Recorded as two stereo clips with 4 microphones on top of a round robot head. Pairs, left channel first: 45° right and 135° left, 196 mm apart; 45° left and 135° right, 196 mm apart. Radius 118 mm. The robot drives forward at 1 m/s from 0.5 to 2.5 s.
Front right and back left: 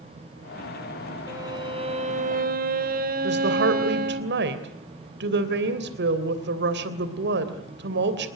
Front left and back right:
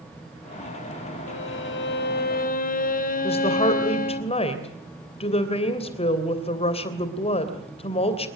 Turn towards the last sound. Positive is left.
turn(degrees=105)